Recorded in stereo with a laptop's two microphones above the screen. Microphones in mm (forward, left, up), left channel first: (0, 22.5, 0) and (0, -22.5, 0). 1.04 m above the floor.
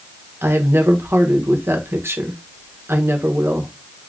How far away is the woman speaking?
About 1.0 m.